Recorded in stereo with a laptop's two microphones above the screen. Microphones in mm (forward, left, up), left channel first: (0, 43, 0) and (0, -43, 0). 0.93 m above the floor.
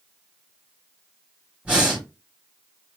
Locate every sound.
1.6 s breathing: 15° right (ahead or behind), 1.6 m